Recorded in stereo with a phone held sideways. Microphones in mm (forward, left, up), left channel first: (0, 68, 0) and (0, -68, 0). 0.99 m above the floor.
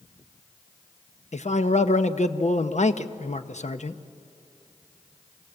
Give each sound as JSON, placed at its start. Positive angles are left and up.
{"t": 1.3, "sound": "a man speaking", "side_deg": 60, "distance_m": 0.8}